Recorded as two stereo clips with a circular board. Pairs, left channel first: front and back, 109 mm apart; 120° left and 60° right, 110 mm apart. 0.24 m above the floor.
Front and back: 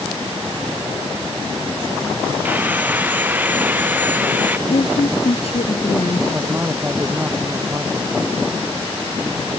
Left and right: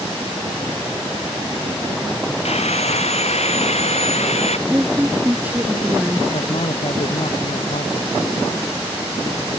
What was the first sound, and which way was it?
Sawing, 105° left.